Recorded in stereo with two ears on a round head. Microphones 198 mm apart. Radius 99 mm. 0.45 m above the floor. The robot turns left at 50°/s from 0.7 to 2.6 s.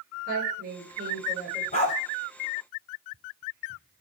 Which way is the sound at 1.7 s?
35° left (ahead or behind).